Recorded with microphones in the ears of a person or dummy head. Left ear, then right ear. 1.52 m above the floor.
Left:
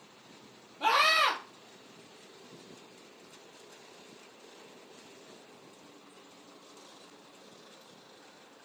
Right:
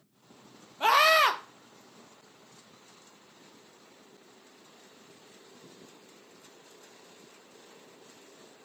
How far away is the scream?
About 0.6 m.